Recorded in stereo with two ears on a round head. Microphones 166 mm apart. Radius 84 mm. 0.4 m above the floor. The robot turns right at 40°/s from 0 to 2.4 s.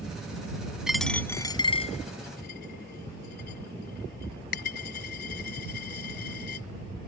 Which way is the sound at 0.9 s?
5° right (ahead or behind).